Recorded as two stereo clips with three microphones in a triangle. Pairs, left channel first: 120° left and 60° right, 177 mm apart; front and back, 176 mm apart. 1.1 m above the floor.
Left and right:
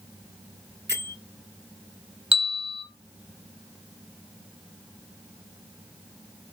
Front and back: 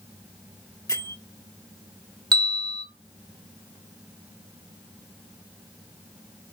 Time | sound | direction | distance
0.9 | a bell | 70° right | 1.6 m
2.3 | a bell | 115° right | 1.9 m